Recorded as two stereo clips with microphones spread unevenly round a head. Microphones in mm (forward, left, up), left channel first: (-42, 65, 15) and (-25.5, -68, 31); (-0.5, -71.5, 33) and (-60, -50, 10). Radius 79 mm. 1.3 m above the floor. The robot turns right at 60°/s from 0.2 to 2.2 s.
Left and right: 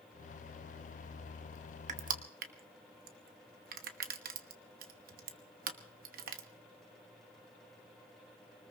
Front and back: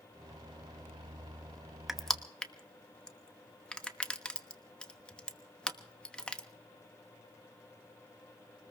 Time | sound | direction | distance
1.9 | crushing | 105° right | 1.1 m